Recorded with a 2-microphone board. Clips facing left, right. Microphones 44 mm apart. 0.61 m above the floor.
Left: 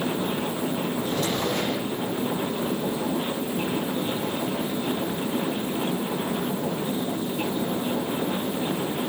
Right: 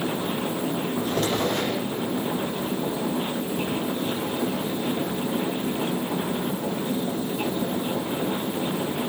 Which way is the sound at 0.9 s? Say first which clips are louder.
Right 2 dB; 55° right (ahead or behind).